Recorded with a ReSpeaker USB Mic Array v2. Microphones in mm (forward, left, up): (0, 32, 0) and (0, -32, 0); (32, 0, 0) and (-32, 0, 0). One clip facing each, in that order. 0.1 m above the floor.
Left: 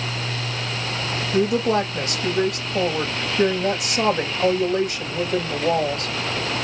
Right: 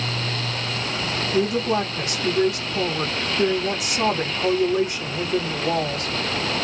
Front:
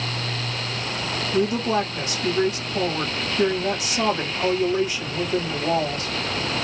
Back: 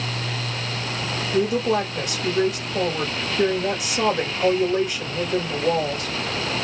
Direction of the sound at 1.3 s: 95° left.